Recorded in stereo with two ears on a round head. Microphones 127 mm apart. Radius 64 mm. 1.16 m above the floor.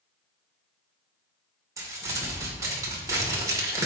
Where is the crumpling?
25° right (ahead or behind), 2.5 m.